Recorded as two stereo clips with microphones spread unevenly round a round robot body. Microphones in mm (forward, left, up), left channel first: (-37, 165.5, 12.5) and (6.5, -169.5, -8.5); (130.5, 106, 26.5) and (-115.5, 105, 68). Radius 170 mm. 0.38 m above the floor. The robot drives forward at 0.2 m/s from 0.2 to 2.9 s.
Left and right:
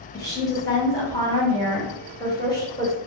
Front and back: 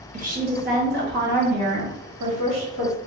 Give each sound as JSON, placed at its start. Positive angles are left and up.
{"t": 0.1, "sound": "a woman speaking", "azimuth_deg": 170, "distance_m": 0.9}